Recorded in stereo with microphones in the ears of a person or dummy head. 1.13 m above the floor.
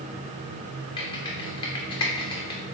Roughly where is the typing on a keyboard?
Left.